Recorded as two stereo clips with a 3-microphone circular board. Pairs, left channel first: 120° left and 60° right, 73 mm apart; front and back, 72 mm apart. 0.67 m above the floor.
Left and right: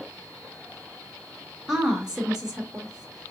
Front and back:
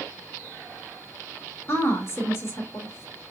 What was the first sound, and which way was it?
A woman speaking, 15° left.